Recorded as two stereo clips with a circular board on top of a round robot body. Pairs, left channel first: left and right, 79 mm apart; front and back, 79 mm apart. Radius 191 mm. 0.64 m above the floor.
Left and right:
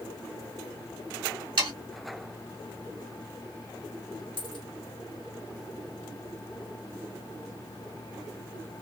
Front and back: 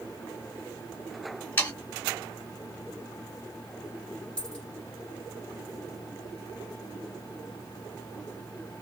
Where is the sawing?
65° right, 0.7 m.